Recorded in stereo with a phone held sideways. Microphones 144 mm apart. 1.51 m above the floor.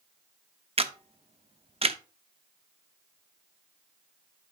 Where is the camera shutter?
45° right (ahead or behind), 0.7 m.